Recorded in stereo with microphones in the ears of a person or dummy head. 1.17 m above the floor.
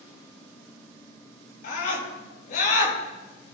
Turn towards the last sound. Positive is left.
turn(degrees=55)  # may be behind; listen again after turning